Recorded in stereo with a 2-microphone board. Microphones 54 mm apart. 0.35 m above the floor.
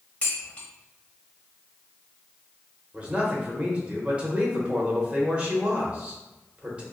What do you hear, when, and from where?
0.2 s dishes clattering: 25° left (ahead or behind), 1.1 m
2.9 s a man speaking: 20° right (ahead or behind), 1.0 m